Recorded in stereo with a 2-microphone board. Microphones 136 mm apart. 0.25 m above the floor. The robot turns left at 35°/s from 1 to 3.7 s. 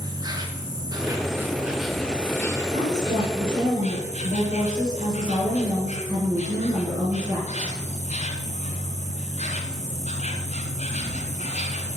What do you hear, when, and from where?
0.0 s an insect: 150° right, 1.6 m; by 12.0 s 120° left, 1.6 m
2.7 s a woman speaking: 110° right, 4 m; by 7.8 s 145° right, 4 m